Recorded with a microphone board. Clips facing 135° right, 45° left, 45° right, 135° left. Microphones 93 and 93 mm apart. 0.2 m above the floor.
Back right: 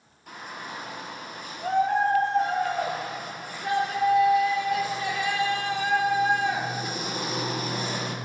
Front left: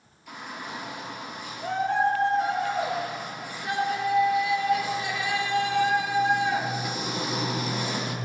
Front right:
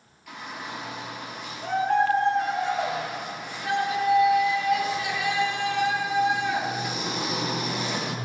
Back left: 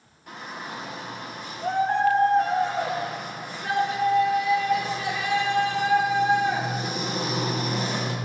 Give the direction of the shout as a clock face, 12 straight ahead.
6 o'clock.